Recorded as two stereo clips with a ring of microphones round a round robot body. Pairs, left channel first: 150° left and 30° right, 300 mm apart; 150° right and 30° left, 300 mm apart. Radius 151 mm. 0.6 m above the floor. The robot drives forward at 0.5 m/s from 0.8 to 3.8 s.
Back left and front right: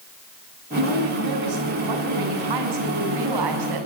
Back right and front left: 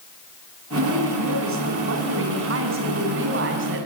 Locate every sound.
0.8 s a woman speaking: 20° right, 7.5 m; by 3.9 s 25° right, 6 m